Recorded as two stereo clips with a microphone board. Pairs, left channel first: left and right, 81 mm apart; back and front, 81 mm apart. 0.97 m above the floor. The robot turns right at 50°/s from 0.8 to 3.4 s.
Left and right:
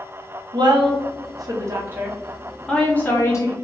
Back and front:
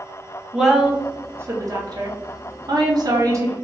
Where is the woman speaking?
85° right, 0.7 m; by 3.5 s 45° left, 0.7 m.